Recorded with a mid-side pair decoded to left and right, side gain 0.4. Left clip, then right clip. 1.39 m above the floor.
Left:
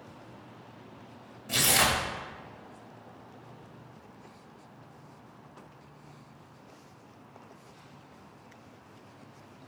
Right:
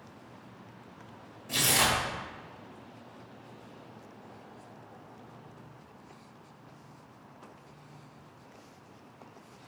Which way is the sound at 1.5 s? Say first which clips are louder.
Left 1 dB; 45° left.